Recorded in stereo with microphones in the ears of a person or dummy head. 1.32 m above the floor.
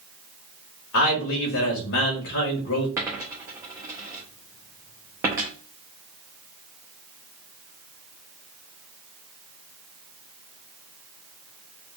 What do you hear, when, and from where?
0.9 s a man speaking: 60° left (ahead or behind), 1.7 m
3.0 s a dropped coin: 10° right (ahead or behind), 0.6 m